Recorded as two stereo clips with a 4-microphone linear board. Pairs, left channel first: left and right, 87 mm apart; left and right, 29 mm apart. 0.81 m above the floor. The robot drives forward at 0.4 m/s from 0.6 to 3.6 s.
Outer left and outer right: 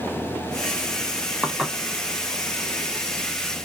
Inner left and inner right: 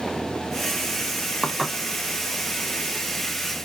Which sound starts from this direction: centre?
Dishes clattering, at 1.4 s.